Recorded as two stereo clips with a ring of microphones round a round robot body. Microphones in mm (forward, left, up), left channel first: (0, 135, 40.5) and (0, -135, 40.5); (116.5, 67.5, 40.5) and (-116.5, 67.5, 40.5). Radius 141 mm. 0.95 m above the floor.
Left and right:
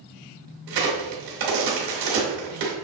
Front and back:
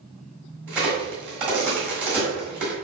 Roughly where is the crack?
Right.